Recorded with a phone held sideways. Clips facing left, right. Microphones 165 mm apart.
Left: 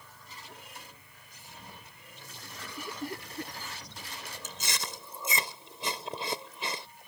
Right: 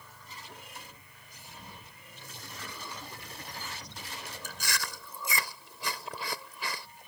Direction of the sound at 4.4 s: 25° left (ahead or behind).